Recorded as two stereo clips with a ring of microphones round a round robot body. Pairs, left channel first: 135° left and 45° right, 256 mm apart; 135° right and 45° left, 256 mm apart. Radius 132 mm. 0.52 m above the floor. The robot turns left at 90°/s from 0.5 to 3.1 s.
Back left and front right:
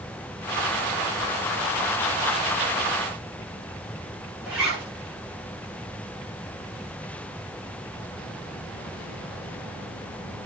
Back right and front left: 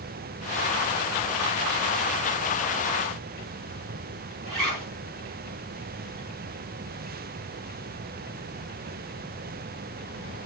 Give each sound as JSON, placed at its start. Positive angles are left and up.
{"t": 4.5, "sound": "a zipper", "azimuth_deg": 40, "distance_m": 9.5}